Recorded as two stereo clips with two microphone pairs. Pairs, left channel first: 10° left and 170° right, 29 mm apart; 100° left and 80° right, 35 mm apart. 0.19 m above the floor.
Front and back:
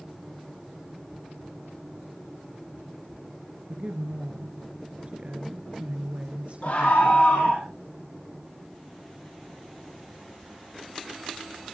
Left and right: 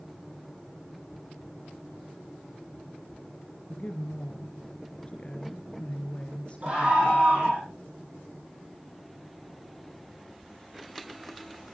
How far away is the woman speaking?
About 2.5 m.